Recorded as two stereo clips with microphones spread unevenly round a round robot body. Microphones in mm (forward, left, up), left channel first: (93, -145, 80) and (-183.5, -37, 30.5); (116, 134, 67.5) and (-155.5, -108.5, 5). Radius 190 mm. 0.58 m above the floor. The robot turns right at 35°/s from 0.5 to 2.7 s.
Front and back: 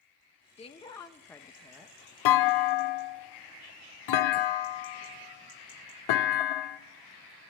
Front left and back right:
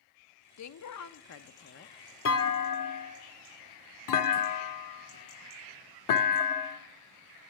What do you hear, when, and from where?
0.6 s a woman speaking: 50° left, 0.7 m; by 2.0 s 95° left, 0.7 m
2.2 s a clunk: 15° right, 0.7 m; by 6.8 s straight ahead, 0.7 m